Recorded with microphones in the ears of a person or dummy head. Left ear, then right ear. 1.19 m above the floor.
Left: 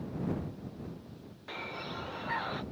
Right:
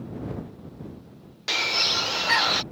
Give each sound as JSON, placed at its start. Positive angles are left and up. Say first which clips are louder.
{"t": 1.5, "sound": "a bird", "louder": "right 17 dB", "side_deg": -70}